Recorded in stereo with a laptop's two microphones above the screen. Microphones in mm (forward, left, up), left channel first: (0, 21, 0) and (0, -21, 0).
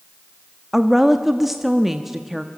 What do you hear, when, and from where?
0.7 s a woman speaking: 5° right (ahead or behind), 1.3 m